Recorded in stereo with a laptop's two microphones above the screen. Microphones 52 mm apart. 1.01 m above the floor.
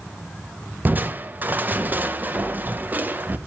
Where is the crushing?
35° right (ahead or behind), 0.6 m.